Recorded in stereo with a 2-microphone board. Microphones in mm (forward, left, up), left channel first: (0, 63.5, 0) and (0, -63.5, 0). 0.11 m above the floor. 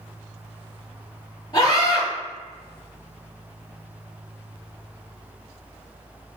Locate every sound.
1.5 s a scream: 30° left (ahead or behind), 2.0 m